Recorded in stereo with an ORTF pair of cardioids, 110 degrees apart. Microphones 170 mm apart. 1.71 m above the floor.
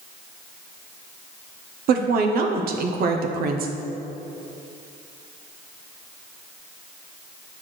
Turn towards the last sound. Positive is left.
turn(degrees=-60)